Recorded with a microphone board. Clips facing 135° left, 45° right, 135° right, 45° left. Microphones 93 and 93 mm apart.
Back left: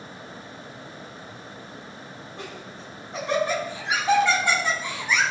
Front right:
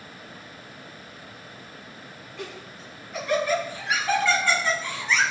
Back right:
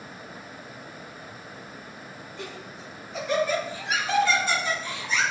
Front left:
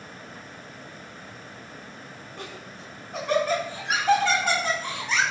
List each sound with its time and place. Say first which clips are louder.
2.4 s laughter: front right 2 dB, back right 1 dB; 80° left, 6.5 m; by 5.2 s 60° left, 5.5 m